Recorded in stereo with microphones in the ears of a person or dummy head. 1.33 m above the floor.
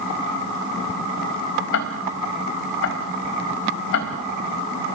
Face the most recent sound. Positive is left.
turn(degrees=60)  # may be behind; listen again after turning